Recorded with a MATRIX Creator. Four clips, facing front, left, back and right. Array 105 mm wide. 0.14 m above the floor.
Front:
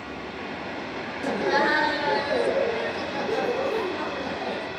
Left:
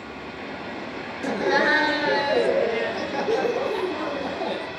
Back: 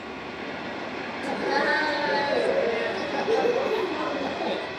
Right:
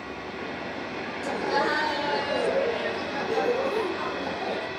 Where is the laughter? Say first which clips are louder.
Left 4 dB, front 2 dB; 65° left, 2.5 m; by 4.7 s 145° left, 4.5 m.